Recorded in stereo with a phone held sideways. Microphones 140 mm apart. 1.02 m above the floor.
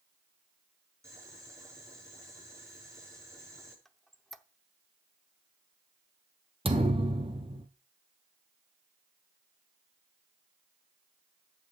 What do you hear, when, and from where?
1.0 s boiling: 20° right (ahead or behind), 6 m
3.9 s a squeak: centre (ahead or behind), 0.7 m
6.7 s a thud: 40° right (ahead or behind), 1.5 m